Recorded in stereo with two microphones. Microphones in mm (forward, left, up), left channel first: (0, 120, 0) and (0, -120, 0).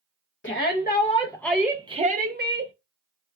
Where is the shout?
50° left (ahead or behind), 0.8 m; by 2.7 s 50° right (ahead or behind), 0.9 m.